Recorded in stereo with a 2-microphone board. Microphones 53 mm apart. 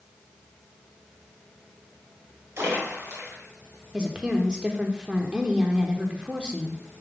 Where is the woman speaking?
20° right (ahead or behind), 0.9 m.